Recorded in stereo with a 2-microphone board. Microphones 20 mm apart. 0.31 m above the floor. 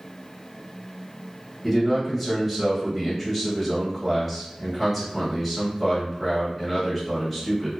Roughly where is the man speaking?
Centre.